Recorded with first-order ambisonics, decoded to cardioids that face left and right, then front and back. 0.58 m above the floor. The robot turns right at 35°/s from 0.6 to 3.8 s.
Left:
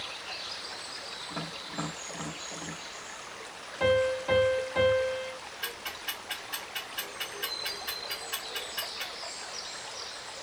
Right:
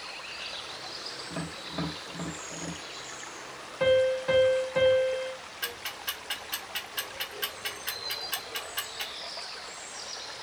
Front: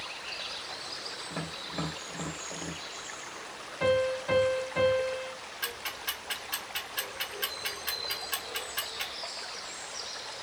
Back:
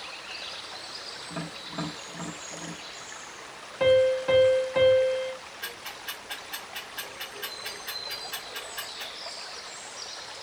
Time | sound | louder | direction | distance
1.3 | tapping | even, back 2 dB | 140° right | 1.1 m
3.8 | a piano | right 2 dB, back 6 dB | 165° right | 0.8 m
5.6 | ticking | right 2 dB, front 3 dB | 60° right | 1.3 m